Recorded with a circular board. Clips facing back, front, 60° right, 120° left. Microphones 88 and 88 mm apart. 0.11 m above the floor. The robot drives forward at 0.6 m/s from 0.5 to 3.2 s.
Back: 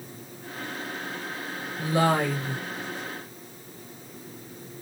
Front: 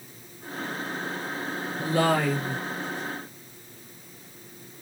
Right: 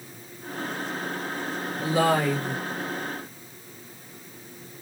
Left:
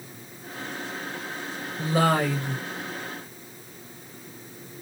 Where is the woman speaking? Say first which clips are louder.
Even, even; 115° left, 1.9 m; by 2.6 s 135° left, 2 m.